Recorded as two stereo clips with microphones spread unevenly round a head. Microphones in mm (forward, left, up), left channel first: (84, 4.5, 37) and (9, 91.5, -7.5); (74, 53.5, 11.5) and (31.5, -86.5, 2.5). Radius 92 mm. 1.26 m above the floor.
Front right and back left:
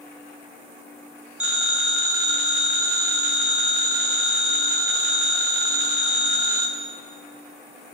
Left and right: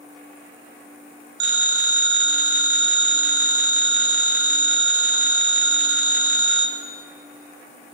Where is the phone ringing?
135° right, 1.6 m.